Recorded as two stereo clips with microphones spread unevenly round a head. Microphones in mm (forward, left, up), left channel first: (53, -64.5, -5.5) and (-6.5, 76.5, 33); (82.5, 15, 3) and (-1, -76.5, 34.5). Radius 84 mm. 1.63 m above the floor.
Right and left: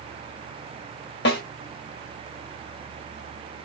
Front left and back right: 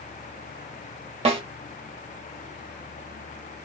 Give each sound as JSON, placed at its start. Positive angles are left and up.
{"t": 1.2, "sound": "a snare drum", "azimuth_deg": -100, "distance_m": 1.5}